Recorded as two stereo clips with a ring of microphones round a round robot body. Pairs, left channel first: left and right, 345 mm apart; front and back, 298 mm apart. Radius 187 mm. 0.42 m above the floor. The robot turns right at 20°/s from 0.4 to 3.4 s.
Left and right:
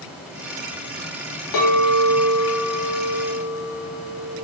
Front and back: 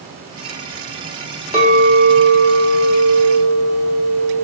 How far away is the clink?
About 1.1 m.